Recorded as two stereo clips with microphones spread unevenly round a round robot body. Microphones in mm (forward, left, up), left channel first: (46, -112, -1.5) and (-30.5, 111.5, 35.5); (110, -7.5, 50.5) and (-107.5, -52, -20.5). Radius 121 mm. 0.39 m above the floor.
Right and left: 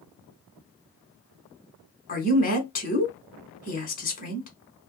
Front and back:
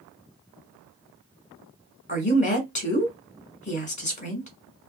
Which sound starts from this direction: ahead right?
A woman speaking, at 2.1 s.